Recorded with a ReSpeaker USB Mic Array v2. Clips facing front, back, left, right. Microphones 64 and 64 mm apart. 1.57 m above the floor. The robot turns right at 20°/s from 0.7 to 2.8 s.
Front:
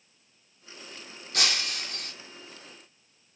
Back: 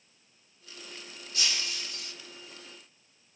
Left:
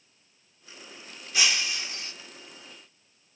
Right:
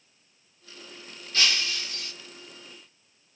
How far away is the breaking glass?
About 2.5 m.